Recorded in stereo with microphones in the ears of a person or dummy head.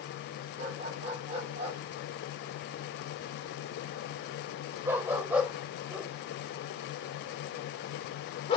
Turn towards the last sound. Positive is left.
turn(degrees=30)  # may be behind; listen again after turning